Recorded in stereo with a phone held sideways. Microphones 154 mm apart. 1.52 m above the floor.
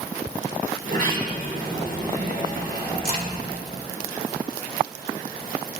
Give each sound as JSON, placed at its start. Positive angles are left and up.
{"t": 0.8, "sound": "a sliding door", "side_deg": -65, "distance_m": 4.0}
{"t": 3.0, "sound": "a crack", "side_deg": -65, "distance_m": 2.0}